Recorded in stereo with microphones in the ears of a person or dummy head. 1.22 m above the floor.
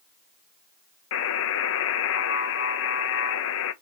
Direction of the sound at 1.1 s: 70° left (ahead or behind).